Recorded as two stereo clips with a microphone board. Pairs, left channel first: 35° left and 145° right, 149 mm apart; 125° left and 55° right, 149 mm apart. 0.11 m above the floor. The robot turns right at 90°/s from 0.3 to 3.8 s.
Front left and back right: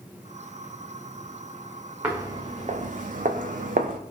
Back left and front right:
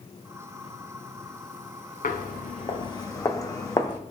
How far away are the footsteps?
About 1.2 m.